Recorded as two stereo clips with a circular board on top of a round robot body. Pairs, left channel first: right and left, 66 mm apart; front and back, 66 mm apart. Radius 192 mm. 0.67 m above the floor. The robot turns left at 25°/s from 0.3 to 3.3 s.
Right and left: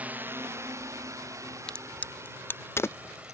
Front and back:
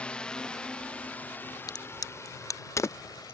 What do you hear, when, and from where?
0.0 s a drone: 55° left; by 3.3 s 20° left
1.7 s a crack: 15° right; by 3.3 s 55° right